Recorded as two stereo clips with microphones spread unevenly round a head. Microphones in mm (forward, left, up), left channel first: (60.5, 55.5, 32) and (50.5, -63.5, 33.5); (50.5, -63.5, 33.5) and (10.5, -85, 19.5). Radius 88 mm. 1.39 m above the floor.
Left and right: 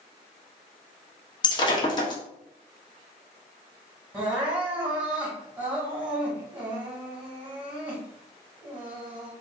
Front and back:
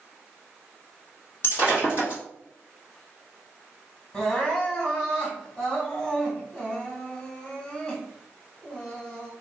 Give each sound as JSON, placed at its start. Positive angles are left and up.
{"t": 1.4, "sound": "breaking glass", "azimuth_deg": 40, "distance_m": 1.1}
{"t": 4.1, "sound": "crying", "azimuth_deg": -20, "distance_m": 1.6}